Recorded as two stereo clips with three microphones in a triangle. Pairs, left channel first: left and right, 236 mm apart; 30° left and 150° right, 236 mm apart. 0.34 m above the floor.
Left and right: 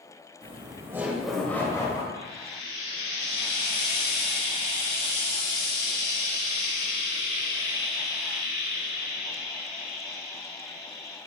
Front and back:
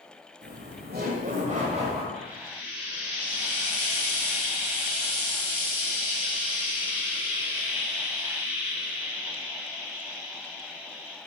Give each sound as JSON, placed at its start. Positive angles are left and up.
{"t": 0.4, "sound": "laughter", "azimuth_deg": -145, "distance_m": 1.8}
{"t": 2.1, "sound": "frying", "azimuth_deg": -70, "distance_m": 2.5}